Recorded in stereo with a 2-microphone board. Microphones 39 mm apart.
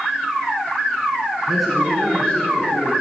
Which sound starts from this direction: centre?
A man speaking, at 1.5 s.